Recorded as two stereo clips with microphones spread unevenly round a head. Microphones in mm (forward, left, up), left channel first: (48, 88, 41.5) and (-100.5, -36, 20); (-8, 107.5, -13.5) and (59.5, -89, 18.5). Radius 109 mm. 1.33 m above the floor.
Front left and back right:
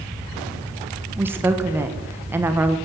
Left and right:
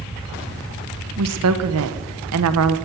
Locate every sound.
1.2 s a woman speaking: 60° right, 1.1 m